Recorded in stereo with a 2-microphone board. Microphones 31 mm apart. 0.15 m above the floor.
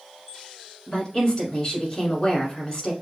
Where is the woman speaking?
30° left (ahead or behind), 1.3 m.